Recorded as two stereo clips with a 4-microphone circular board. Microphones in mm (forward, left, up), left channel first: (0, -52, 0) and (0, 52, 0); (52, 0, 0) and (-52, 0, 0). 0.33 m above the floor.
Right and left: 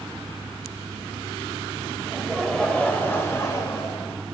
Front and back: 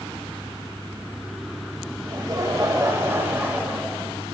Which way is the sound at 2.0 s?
175° left.